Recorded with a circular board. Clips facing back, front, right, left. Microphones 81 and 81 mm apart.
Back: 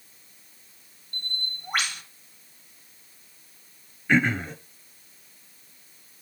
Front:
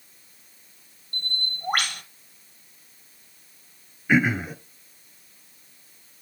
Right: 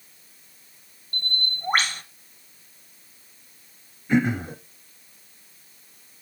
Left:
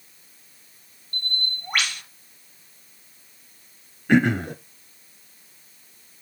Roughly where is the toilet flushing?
No toilet flushing in this recording.